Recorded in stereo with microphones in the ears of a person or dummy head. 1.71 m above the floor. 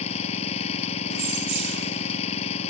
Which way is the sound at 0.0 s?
35° left (ahead or behind).